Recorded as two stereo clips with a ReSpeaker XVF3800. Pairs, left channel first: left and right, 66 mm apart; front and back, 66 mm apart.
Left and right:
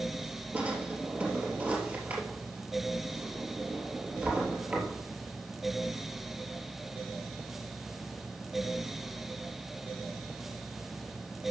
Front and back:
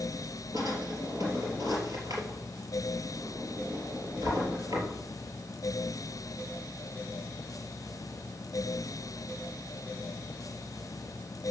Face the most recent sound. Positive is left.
turn(degrees=-155)